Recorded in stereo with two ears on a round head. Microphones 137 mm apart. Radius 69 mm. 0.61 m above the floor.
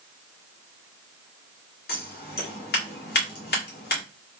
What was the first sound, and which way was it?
Scissors, 70° left (ahead or behind).